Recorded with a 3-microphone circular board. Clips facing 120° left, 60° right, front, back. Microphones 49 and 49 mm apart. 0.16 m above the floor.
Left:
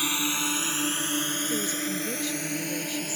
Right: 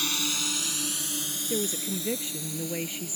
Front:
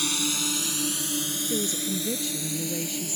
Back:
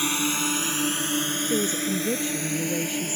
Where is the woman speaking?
125° right.